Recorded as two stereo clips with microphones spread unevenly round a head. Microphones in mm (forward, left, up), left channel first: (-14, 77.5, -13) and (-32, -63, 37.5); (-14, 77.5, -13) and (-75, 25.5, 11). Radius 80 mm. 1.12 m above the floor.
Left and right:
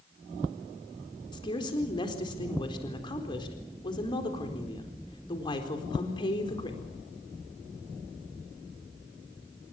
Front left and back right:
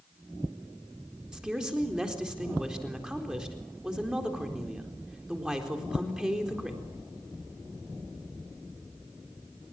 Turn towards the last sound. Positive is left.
turn(degrees=135)